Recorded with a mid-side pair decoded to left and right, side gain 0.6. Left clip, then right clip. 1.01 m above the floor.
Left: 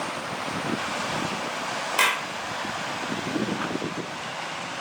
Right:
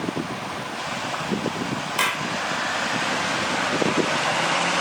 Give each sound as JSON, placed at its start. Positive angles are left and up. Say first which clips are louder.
{"t": 2.0, "sound": "a clap", "louder": "left 1 dB", "azimuth_deg": 10, "distance_m": 2.5}